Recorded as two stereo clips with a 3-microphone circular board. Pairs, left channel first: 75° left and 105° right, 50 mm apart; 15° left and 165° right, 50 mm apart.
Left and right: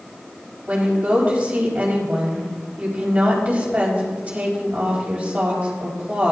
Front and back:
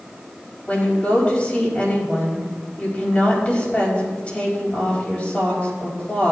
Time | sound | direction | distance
0.7 | a woman speaking | 45° right | 4.5 m